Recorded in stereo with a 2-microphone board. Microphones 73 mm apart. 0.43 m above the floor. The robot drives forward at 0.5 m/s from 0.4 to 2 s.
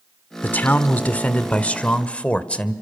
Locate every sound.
0.4 s a man speaking: 25° left (ahead or behind), 1.0 m; by 2.7 s 15° left (ahead or behind), 1.5 m